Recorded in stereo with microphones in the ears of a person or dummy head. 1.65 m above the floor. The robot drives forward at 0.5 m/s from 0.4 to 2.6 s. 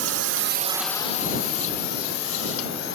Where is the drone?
80° right; by 2.9 s 65° left (ahead or behind).